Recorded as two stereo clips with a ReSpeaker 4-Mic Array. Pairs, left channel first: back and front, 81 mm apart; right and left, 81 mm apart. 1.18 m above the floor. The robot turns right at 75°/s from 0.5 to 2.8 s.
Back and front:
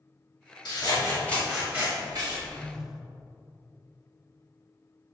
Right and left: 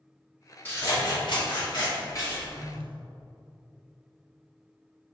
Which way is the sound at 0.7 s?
155° right.